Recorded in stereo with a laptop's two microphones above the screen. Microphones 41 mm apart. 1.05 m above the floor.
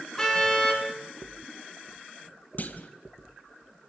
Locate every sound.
0.2 s a car horn: 10° left (ahead or behind), 7 m
2.6 s a clunk: 45° left (ahead or behind), 2 m